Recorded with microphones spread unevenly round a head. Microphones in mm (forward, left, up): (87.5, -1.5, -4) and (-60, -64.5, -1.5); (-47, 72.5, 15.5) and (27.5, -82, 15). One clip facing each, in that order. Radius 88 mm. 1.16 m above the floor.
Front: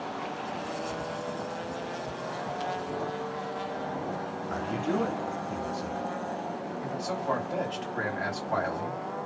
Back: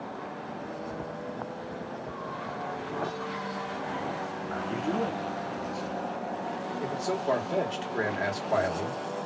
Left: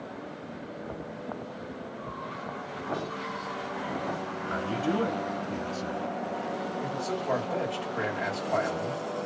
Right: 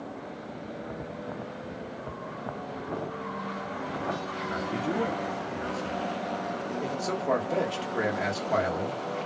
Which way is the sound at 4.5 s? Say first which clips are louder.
Front 1 dB, left 2 dB; 105° left.